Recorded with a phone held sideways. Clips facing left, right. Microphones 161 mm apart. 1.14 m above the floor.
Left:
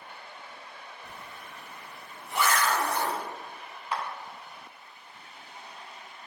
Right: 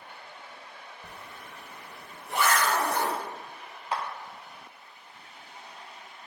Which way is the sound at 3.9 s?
25° right (ahead or behind).